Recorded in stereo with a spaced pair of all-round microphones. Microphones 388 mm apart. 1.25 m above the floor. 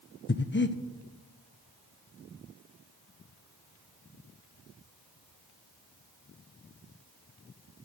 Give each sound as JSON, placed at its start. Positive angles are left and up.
{"t": 0.3, "sound": "breathing", "side_deg": 30, "distance_m": 0.6}